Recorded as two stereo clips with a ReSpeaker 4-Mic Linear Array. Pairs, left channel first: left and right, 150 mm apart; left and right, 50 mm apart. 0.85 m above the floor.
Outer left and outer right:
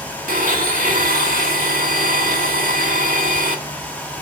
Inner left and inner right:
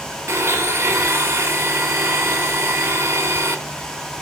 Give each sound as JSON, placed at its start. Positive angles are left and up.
{"t": 0.3, "sound": "a blender", "side_deg": -70, "distance_m": 1.6}